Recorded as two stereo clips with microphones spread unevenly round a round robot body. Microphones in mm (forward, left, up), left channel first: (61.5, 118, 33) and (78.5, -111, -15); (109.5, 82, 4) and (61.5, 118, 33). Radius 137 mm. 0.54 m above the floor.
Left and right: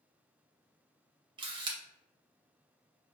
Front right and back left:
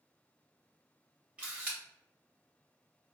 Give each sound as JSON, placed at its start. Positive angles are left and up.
{"t": 1.4, "sound": "a camera shutter", "azimuth_deg": -115, "distance_m": 0.6}